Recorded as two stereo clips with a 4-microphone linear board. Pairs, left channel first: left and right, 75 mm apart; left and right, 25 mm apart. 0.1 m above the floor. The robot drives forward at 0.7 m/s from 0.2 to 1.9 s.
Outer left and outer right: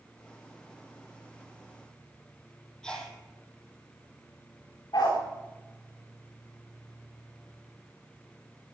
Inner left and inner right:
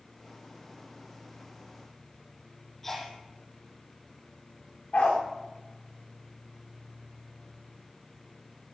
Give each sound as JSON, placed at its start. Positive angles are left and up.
{"t": 2.8, "sound": "a sneeze", "side_deg": 10, "distance_m": 3.0}
{"t": 4.9, "sound": "a dog barking", "side_deg": 65, "distance_m": 6.0}